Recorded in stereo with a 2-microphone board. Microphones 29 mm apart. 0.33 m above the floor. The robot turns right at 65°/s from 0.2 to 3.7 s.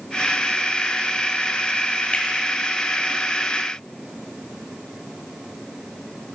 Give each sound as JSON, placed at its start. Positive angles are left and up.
{"t": 2.1, "sound": "a finger snap", "side_deg": 45, "distance_m": 1.3}